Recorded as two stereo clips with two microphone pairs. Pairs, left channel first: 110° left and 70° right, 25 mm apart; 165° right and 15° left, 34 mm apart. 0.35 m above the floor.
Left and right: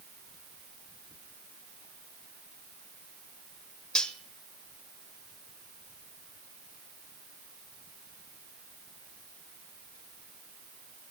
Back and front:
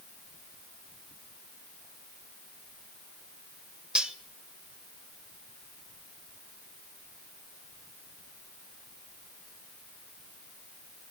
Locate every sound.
4.0 s cutlery clinking: 75° left, 0.8 m